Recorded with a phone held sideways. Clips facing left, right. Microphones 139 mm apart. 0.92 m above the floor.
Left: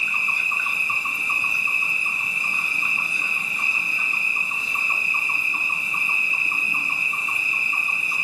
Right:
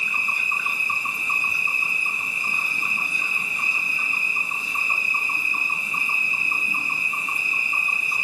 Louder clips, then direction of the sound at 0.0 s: Even; 5° right (ahead or behind).